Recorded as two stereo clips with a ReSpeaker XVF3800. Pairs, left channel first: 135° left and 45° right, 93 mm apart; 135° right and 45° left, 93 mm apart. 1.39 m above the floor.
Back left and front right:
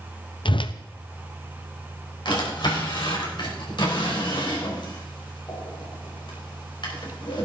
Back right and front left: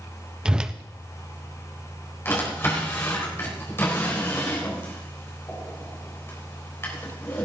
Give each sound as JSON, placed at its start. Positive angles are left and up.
{"t": 0.5, "sound": "a whoosh", "azimuth_deg": 125, "distance_m": 0.5}
{"t": 2.2, "sound": "a drawer", "azimuth_deg": 165, "distance_m": 3.5}